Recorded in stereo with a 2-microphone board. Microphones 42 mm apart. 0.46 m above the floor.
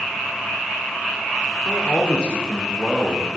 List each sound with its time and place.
1.6 s a man speaking: 30° left (ahead or behind), 0.7 m; by 3.3 s 5° left (ahead or behind), 1.6 m